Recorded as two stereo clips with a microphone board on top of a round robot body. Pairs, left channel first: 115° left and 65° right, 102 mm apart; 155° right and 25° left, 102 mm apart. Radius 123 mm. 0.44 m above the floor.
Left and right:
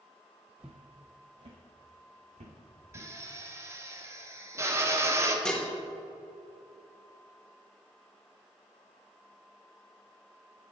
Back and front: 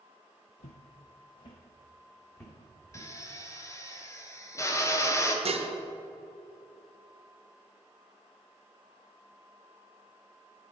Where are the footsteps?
150° right, 0.7 m; by 3.1 s 85° right, 1.6 m.